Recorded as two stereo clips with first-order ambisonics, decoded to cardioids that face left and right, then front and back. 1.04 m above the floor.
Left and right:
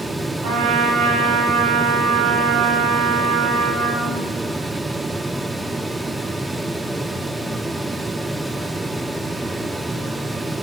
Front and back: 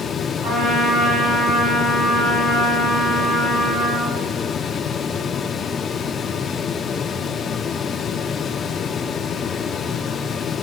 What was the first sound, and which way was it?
A trumpet, 100° right.